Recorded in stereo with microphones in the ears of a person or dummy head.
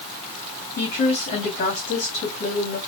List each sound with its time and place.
0.8 s a woman speaking: 35° left (ahead or behind), 2 m